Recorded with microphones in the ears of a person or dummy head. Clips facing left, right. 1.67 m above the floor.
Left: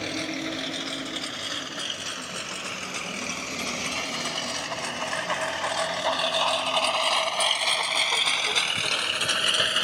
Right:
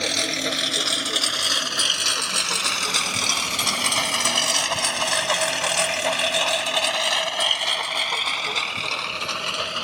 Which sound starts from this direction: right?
A lawn mower, at 0.0 s.